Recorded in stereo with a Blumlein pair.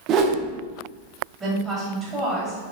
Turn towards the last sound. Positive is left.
turn(degrees=-15)